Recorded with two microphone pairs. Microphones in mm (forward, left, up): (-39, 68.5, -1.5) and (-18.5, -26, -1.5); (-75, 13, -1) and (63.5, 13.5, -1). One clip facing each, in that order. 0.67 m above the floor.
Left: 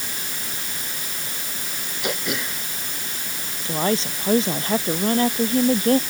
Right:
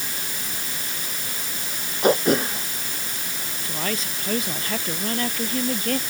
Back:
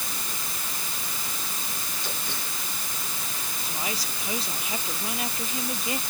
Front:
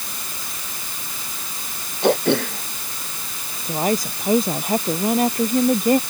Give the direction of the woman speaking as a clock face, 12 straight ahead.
11 o'clock.